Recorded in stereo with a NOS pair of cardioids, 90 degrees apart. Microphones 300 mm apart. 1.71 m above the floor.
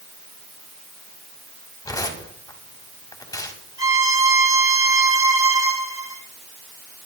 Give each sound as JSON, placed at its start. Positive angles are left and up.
{"t": 1.9, "sound": "tearing paper", "azimuth_deg": 10, "distance_m": 3.0}
{"t": 3.8, "sound": "a violin", "azimuth_deg": -10, "distance_m": 1.7}